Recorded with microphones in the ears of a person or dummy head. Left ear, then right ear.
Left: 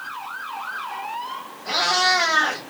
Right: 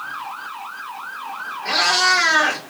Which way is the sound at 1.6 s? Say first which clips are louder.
Right 3 dB; 40° right (ahead or behind).